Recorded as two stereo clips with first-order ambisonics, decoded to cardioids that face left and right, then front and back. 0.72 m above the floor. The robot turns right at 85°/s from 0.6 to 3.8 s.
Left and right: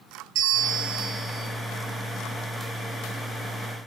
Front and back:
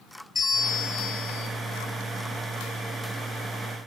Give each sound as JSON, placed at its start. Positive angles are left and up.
{"t": 0.3, "sound": "a bell", "azimuth_deg": -75, "distance_m": 2.5}